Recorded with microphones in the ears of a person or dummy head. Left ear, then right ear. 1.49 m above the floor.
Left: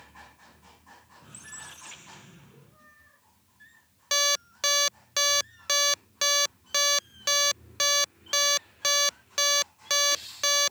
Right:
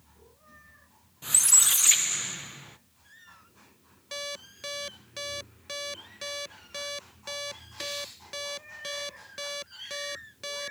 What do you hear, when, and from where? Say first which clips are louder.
1.2 s a squeak: right 22 dB; 45° right (ahead or behind)
4.1 s an alarm clock: left 12 dB; 25° left (ahead or behind)